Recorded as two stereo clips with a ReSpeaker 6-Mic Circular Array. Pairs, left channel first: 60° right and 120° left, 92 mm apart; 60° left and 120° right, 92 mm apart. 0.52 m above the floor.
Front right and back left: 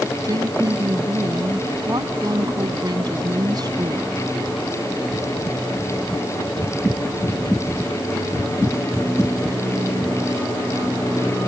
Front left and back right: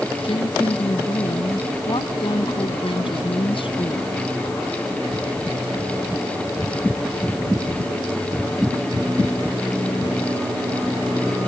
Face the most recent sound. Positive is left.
turn(degrees=75)